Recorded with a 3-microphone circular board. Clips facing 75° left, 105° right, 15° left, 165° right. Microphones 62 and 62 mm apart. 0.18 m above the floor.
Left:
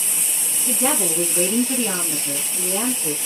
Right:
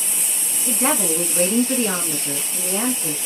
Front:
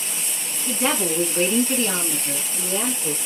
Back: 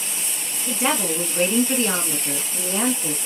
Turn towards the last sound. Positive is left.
turn(degrees=-155)